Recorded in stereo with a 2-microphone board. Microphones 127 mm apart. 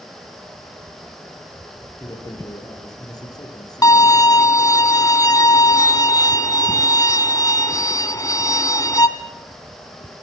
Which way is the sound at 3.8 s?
25° left (ahead or behind).